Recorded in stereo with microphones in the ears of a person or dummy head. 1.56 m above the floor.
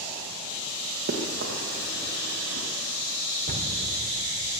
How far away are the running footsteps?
About 1.8 m.